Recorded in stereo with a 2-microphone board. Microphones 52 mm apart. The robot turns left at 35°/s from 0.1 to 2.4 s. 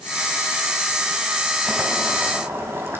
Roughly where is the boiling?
Right.